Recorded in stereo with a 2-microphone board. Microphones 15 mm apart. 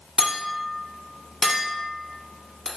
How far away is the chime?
No chime in this recording.